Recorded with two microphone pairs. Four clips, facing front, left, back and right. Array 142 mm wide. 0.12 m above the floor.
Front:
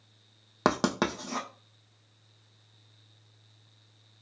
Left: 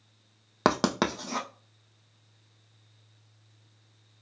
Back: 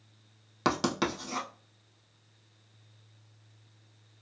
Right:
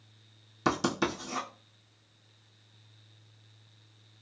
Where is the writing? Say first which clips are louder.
Left 4 dB, front 2 dB; 65° left, 1.2 m.